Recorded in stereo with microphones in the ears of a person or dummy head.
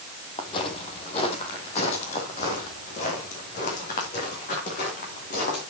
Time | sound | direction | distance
0.4 | footsteps | 30° left (ahead or behind) | 2.5 m